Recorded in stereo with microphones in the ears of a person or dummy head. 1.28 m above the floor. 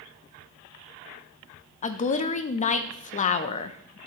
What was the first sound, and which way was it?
A woman speaking, 35° left (ahead or behind).